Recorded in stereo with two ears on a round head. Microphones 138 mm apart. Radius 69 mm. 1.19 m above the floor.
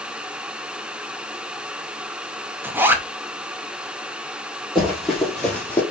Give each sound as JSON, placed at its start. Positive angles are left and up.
{"t": 2.6, "sound": "a zipper", "side_deg": -15, "distance_m": 0.6}
{"t": 4.8, "sound": "running footsteps", "side_deg": 0, "distance_m": 2.5}